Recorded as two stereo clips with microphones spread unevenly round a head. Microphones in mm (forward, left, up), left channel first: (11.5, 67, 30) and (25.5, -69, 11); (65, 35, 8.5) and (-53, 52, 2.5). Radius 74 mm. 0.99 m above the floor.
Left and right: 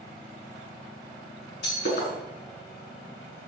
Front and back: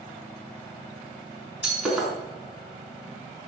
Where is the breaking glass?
85° left, 5 m.